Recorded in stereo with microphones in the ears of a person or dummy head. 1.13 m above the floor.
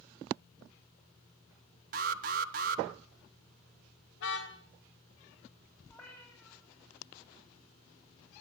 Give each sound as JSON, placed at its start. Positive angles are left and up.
{"t": 1.9, "sound": "an alarm", "side_deg": -45, "distance_m": 1.2}
{"t": 4.2, "sound": "a car horn", "side_deg": 85, "distance_m": 3.0}
{"t": 5.9, "sound": "a cat meowing", "side_deg": 15, "distance_m": 8.0}